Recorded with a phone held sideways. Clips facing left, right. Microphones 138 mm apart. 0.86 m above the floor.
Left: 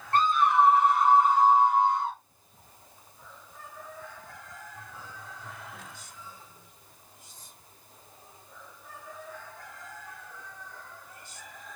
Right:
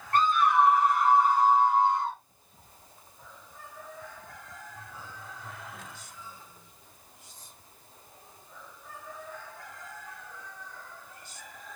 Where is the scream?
25° left (ahead or behind), 1.4 m; by 2.2 s 5° left (ahead or behind), 0.9 m.